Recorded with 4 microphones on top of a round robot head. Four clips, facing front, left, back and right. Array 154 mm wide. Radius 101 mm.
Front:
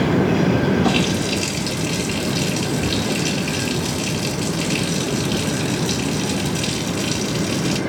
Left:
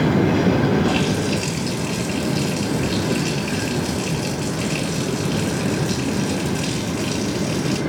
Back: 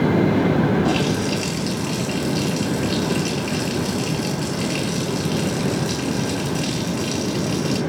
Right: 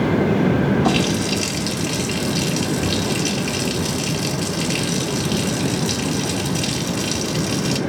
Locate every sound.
0.8 s a running tap: 85° right, 3 m